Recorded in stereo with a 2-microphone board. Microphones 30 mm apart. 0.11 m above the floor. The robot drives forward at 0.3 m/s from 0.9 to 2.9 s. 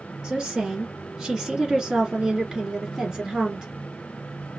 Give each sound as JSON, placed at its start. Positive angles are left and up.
{"t": 0.2, "sound": "a woman speaking", "side_deg": -25, "distance_m": 1.6}